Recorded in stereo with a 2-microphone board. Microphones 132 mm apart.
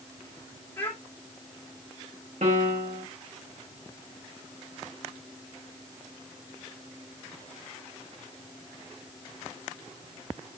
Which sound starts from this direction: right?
A piano, at 2.4 s.